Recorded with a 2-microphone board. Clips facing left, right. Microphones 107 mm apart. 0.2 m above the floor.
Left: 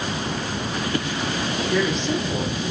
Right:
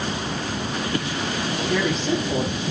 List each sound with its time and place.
1.7 s a woman speaking: 35° right (ahead or behind), 9 m; by 2.7 s 40° right (ahead or behind), 9 m